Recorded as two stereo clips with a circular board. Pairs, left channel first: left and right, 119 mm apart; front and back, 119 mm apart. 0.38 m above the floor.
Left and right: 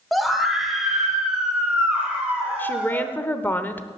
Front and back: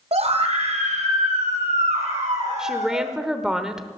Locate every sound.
0.1 s a scream: straight behind, 1.8 m; by 3.1 s 170° right, 4 m
2.6 s a woman speaking: 110° left, 0.8 m